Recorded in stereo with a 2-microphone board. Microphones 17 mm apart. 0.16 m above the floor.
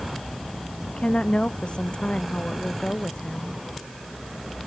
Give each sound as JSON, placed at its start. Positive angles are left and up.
{"t": 0.9, "sound": "a woman speaking", "side_deg": 70}